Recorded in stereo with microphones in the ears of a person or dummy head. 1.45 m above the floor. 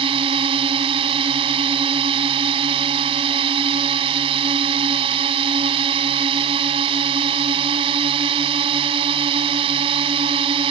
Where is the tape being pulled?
No tape being pulled in this recording.